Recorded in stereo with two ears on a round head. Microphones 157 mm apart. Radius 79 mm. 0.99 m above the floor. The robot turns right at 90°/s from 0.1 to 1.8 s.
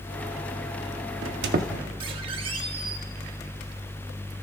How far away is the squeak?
About 1.2 m.